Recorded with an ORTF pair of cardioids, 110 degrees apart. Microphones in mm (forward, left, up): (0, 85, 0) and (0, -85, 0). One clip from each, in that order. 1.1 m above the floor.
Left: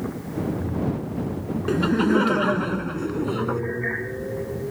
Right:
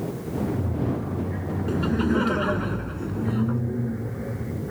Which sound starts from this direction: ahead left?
Laughter, at 1.7 s.